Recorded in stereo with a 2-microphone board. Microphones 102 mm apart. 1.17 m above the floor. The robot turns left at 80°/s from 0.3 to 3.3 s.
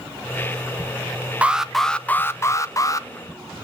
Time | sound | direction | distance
1.4 | an alarm | 155° right | 0.8 m